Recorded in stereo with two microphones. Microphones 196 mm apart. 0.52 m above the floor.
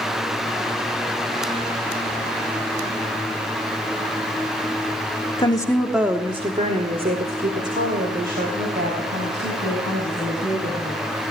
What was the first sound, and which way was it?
A woman speaking, 25° left (ahead or behind).